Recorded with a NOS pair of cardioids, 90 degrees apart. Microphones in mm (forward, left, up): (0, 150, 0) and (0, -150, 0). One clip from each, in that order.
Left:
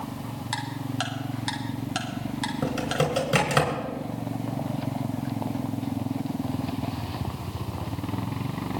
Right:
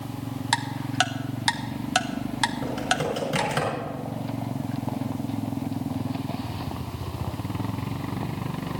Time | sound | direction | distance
0.5 | ticking | 45° right | 1.2 m
2.6 | typing on a keyboard | 40° left | 4.5 m